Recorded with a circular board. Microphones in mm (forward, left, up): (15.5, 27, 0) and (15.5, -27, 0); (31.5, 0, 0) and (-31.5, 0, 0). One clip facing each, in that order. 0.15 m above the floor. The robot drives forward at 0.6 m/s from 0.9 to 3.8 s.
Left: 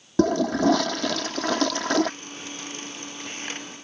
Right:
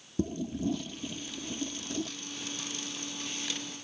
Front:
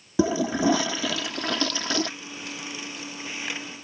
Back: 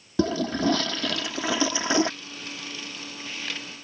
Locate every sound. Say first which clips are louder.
0.2 s a toilet flushing: left 12 dB, front 2 dB; 80° left; by 2.1 s 110° left